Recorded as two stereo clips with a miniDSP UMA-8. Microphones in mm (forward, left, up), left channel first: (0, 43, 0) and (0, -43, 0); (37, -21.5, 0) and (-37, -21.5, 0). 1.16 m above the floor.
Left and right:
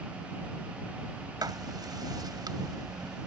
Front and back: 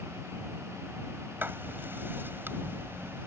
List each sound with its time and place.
1.4 s writing: 120° right